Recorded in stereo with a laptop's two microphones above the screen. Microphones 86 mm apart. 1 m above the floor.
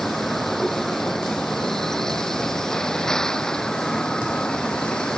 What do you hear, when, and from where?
0.0 s a vehicle: 5° left (ahead or behind); by 5.2 s 10° left (ahead or behind)